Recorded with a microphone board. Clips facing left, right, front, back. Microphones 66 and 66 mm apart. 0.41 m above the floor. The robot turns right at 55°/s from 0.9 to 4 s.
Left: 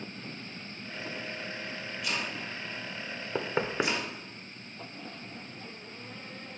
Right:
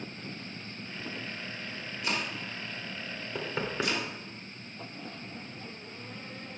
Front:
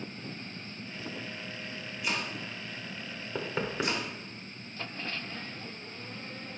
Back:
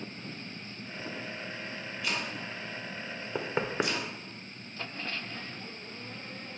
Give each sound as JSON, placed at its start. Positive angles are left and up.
{"t": 2.0, "sound": "chopping", "azimuth_deg": -65, "distance_m": 1.7}
{"t": 3.4, "sound": "knocking", "azimuth_deg": 115, "distance_m": 0.6}